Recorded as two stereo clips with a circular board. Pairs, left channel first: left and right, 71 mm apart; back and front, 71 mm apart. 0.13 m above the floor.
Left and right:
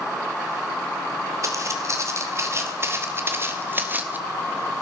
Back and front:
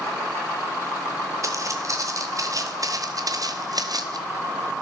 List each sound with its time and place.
1.4 s footsteps: 45° right, 3 m; by 4.2 s 25° right, 1.8 m